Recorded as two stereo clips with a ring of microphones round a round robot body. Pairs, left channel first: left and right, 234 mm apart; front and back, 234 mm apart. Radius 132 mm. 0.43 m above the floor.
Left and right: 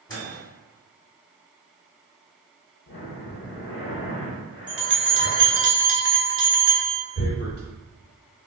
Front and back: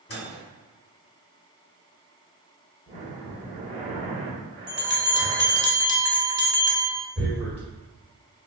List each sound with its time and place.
0.1 s a microwave: 20° left, 1.5 m
2.9 s breathing: 120° left, 0.9 m
4.7 s a bell: 170° right, 1.1 m
7.2 s tearing paper: 120° left, 1.1 m